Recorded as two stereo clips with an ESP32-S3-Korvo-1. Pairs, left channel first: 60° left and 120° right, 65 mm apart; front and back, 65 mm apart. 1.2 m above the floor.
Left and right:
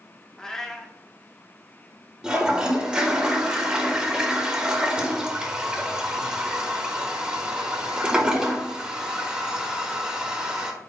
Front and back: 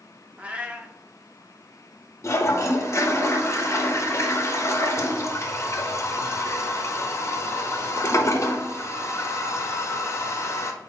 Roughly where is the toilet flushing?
Ahead right.